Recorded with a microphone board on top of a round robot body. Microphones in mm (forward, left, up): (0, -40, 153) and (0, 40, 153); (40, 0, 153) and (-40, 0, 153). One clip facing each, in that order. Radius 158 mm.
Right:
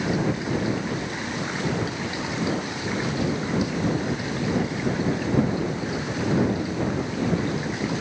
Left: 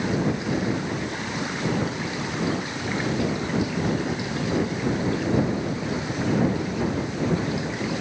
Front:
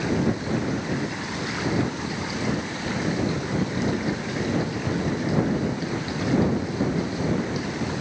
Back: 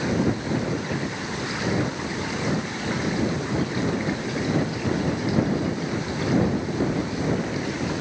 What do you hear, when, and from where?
Only background noise.